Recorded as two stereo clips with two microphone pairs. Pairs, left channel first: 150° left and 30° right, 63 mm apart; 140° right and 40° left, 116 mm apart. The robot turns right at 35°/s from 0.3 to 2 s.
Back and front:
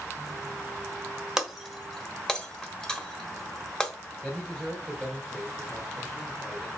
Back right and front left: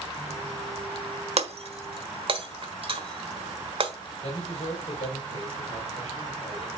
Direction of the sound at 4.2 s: 125° right.